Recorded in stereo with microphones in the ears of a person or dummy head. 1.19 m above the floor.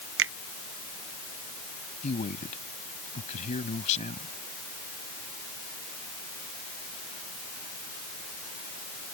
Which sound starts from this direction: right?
A finger snap, at 0.2 s.